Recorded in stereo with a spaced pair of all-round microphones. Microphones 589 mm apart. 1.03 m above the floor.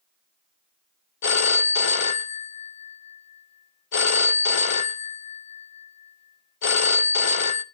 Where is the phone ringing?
60° left (ahead or behind), 0.6 m.